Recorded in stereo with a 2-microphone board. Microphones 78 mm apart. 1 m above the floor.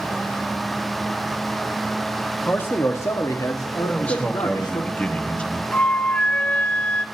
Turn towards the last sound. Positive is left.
turn(degrees=15)  # may be behind; listen again after turning